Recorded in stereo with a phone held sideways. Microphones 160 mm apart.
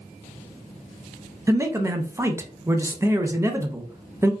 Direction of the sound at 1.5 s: 20° right (ahead or behind).